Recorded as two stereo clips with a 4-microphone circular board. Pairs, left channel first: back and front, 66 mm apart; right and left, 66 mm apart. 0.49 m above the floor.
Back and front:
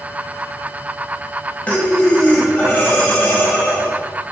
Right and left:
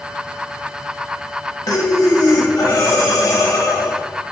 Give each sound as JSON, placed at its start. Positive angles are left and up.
{"t": 1.7, "sound": "breathing", "azimuth_deg": -115, "distance_m": 0.8}